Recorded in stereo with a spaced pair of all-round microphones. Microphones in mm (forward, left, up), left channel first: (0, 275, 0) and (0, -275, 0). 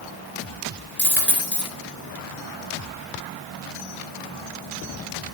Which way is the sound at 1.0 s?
20° left (ahead or behind).